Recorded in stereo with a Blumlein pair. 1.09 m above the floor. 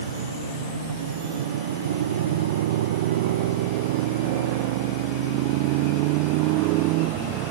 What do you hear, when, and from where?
0.0 s a motorcycle: 65° right; by 7.5 s 40° right